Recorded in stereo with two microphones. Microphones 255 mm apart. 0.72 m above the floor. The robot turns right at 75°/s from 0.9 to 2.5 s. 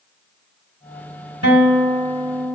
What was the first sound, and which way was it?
A guitar, 80° right.